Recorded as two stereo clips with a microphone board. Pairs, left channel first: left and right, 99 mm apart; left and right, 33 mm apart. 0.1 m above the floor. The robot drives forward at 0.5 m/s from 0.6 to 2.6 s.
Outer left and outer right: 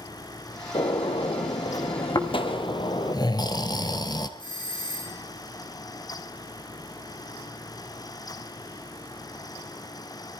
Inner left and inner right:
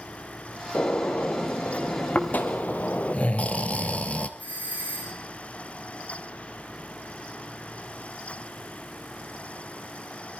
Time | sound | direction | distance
0.7 | a gunshot | 60° left (ahead or behind) | 1.7 m
2.1 | snoring | 40° left (ahead or behind) | 1.7 m
4.4 | a doorbell | 45° left (ahead or behind) | 6.5 m